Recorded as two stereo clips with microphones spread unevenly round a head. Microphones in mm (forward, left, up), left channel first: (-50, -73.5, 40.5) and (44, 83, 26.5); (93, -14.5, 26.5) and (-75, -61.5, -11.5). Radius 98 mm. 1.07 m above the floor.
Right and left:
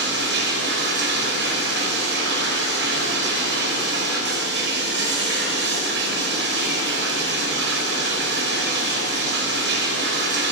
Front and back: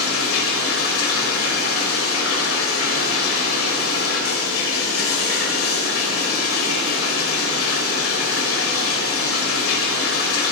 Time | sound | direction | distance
0.0 | running water | 30° left | 5 m